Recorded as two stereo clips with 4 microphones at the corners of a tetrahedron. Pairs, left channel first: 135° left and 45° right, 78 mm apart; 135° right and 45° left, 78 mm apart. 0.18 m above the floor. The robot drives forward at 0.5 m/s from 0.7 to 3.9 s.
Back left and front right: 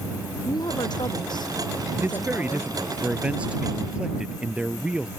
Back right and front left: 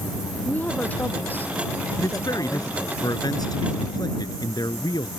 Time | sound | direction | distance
0.5 | a woman speaking | 155° left | ?
2.0 | a man speaking | 105° right | ?